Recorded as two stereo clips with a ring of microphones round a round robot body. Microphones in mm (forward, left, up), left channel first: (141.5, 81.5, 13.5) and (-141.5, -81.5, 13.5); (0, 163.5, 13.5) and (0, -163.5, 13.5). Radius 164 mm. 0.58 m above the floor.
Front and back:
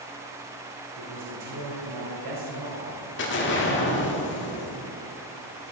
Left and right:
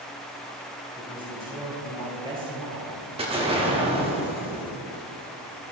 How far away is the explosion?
About 1.5 m.